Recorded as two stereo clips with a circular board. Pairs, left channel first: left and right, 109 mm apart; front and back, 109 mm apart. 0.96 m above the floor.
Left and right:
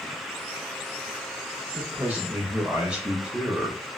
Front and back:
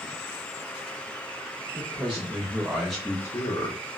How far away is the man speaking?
About 1.1 m.